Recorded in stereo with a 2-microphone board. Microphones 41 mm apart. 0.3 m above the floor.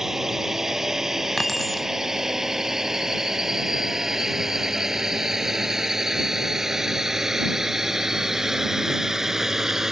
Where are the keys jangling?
5° left (ahead or behind).